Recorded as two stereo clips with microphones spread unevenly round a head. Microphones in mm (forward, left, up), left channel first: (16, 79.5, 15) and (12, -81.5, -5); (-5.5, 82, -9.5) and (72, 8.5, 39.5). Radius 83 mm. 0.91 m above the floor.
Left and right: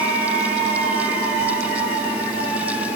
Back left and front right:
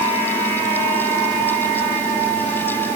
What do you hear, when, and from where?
Only background noise.